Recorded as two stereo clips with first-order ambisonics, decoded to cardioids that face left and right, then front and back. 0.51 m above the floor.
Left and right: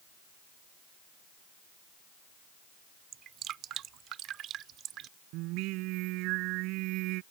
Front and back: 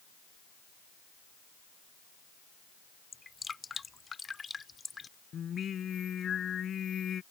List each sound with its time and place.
3.1 s dripping: 70° right
5.3 s singing: 65° right